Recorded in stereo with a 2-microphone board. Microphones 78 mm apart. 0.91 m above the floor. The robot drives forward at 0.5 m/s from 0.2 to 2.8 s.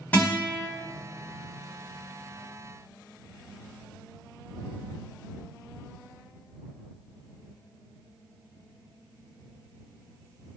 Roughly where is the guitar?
Left.